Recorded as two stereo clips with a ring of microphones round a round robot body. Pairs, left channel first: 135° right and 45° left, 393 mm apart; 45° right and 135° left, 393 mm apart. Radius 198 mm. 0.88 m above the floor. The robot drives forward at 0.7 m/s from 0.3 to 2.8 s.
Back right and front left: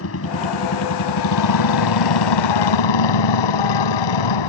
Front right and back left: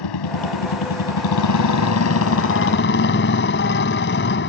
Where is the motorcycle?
80° right; by 4.5 s 110° right.